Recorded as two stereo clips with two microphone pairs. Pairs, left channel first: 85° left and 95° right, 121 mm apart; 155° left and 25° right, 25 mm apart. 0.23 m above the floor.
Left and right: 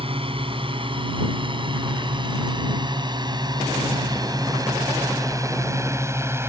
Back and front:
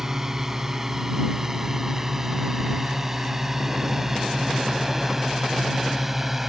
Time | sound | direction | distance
0.0 | a drone | 90° right | ?